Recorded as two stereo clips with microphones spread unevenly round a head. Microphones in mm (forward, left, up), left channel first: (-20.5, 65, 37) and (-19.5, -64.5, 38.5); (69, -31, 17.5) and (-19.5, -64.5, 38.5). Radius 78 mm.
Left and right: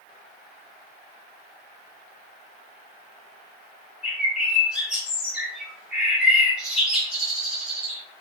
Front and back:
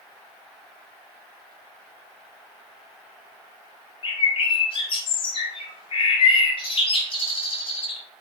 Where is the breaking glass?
No breaking glass in this recording.